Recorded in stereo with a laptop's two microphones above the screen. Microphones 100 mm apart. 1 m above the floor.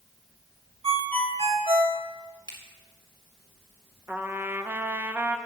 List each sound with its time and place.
0.8 s a ringtone: 75° right (ahead or behind), 1.8 m
2.5 s a finger snap: 50° right (ahead or behind), 3.5 m
4.1 s a trumpet: 20° right (ahead or behind), 0.8 m